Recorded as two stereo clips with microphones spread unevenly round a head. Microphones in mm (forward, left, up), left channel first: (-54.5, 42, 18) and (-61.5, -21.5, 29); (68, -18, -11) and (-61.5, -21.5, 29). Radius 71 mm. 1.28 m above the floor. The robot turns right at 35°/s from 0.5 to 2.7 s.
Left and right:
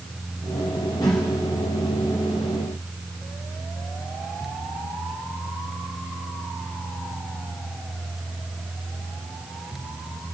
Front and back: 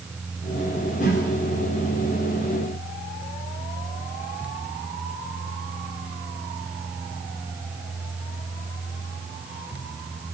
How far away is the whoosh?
About 3.5 m.